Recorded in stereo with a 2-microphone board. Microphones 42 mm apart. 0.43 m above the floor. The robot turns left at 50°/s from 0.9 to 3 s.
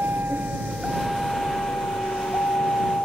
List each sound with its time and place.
0.0 s a vehicle: 60° right (ahead or behind); by 3.0 s 35° left (ahead or behind)